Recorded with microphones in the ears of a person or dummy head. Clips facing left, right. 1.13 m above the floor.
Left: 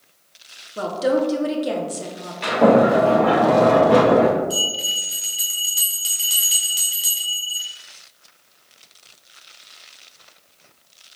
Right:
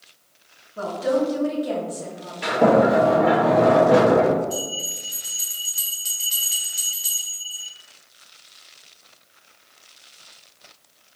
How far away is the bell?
About 0.7 m.